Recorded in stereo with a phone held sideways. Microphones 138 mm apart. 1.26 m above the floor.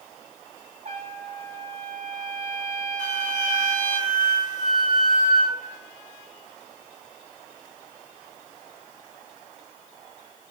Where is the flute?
55° left (ahead or behind), 1.8 m.